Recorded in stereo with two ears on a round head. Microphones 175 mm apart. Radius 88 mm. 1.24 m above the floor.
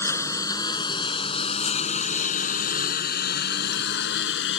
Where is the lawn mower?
15° left (ahead or behind); by 4.6 s 70° left (ahead or behind).